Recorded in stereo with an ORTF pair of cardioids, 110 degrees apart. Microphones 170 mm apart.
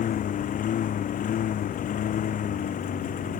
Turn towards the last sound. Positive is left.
turn(degrees=55)